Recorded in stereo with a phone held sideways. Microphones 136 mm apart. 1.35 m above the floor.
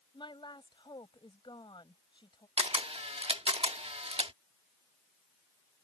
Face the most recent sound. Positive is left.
turn(degrees=-45)  # may be behind; listen again after turning